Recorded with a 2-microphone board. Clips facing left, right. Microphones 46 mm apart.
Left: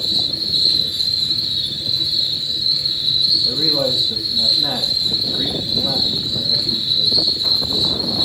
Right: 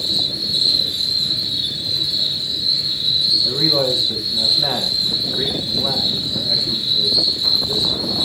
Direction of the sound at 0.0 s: 70° right (ahead or behind).